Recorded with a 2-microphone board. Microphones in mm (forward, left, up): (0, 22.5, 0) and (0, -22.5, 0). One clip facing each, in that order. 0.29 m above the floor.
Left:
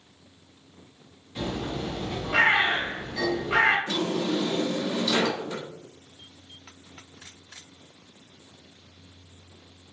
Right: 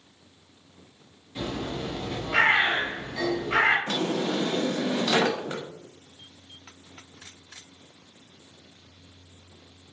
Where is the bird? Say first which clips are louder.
Left 1 dB; centre (ahead or behind), 1.6 m.